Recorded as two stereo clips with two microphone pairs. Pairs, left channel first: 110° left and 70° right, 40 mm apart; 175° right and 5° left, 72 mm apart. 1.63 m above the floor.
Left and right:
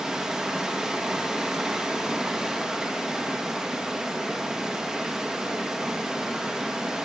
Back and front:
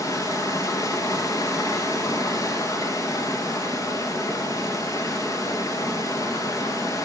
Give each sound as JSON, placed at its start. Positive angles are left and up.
{"t": 0.0, "sound": "running water", "azimuth_deg": -145, "distance_m": 1.6}